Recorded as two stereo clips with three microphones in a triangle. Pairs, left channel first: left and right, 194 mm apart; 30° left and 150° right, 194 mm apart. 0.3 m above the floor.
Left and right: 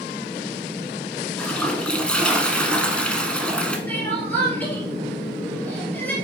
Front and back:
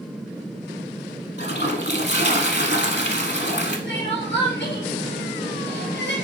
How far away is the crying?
About 2.5 m.